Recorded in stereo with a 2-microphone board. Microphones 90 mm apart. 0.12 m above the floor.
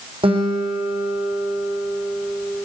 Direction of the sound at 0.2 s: 75° right (ahead or behind).